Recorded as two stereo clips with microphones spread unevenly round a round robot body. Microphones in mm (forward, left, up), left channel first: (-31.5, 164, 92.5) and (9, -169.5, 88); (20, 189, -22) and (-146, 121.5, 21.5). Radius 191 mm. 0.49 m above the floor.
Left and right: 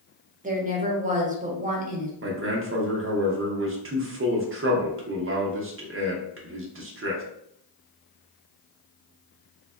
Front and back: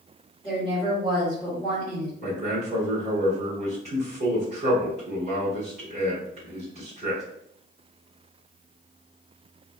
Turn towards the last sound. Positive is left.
turn(degrees=-100)